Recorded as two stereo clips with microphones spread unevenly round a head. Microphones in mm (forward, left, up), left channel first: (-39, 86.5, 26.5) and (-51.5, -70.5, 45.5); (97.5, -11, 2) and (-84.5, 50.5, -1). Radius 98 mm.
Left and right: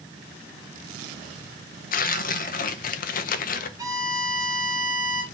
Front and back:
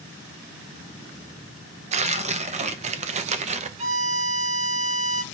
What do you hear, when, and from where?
1.9 s tearing paper: 110° left, 0.6 m
3.8 s a violin: 150° right, 1.1 m